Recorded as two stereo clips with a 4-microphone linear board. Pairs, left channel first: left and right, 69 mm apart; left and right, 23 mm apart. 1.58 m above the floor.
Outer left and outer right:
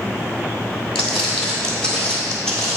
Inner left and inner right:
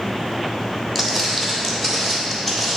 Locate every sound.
0.9 s footsteps: 5° left (ahead or behind), 1.8 m